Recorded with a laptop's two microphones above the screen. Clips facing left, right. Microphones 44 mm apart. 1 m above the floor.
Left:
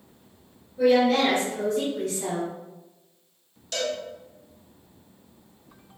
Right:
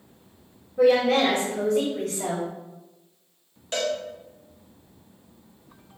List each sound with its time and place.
0.8 s a woman speaking: 65° right (ahead or behind), 1.6 m
3.7 s a cowbell: 30° right (ahead or behind), 0.7 m